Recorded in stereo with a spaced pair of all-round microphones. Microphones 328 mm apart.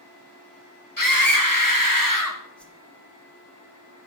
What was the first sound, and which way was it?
A scream, 80° left.